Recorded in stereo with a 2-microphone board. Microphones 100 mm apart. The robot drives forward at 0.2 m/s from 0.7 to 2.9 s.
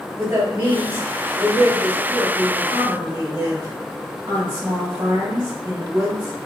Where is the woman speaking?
25° right (ahead or behind), 1.3 m; by 6.4 s 20° right (ahead or behind), 1.5 m.